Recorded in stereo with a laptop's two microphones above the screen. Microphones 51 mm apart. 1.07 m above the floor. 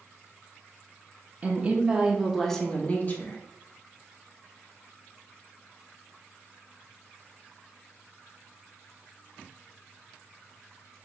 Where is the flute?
I don't hear a flute.